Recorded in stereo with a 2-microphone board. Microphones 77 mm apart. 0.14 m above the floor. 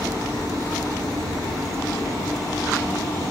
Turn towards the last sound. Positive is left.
turn(degrees=55)  # may be behind; listen again after turning